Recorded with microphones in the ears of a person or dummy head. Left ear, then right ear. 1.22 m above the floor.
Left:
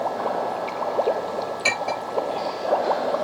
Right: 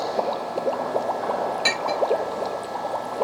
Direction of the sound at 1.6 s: 10° right (ahead or behind).